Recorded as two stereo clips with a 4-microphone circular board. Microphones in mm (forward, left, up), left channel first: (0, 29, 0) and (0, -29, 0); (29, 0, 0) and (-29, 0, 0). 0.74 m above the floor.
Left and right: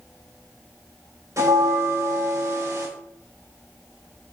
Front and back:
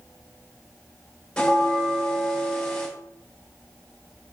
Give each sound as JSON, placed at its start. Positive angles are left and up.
{"t": 1.4, "sound": "a bell", "azimuth_deg": -75, "distance_m": 2.5}